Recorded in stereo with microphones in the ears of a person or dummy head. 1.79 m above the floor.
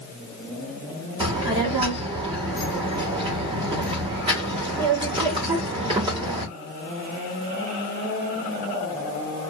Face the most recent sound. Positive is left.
turn(degrees=-20)  # may be behind; listen again after turning